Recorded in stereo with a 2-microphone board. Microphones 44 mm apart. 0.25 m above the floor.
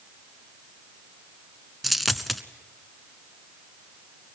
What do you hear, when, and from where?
1.8 s a dropped coin: centre (ahead or behind), 0.8 m